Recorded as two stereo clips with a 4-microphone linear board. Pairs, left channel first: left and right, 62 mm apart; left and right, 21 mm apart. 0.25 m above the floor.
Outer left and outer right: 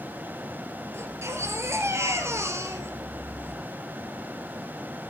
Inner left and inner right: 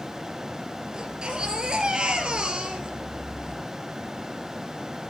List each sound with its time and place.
0.9 s a baby crying: 45° right (ahead or behind), 2.5 m